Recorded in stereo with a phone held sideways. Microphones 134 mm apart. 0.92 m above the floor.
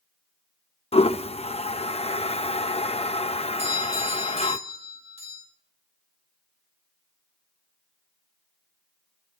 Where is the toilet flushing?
50° left (ahead or behind), 0.5 m.